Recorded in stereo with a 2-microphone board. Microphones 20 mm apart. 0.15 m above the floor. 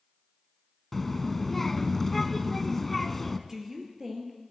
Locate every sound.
0.9 s a child speaking: 15° left (ahead or behind), 0.7 m
3.5 s a woman speaking: 20° right (ahead or behind), 3.5 m